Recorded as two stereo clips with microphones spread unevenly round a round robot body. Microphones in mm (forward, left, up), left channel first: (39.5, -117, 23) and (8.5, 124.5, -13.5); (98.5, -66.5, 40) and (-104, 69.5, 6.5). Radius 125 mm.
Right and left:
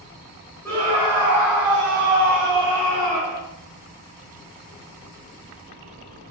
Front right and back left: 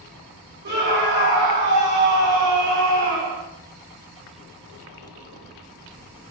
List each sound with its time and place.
0.7 s a scream: 170° right, 2.5 m; by 3.4 s 175° left, 5.5 m